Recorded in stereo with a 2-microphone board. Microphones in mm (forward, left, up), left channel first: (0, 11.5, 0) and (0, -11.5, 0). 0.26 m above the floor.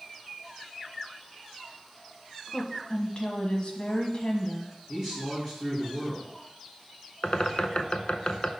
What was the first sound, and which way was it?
A woman speaking, 50° left (ahead or behind).